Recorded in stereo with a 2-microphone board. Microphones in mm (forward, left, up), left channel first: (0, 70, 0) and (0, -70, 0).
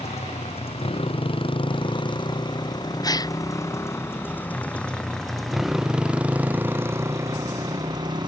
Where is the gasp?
25° left (ahead or behind).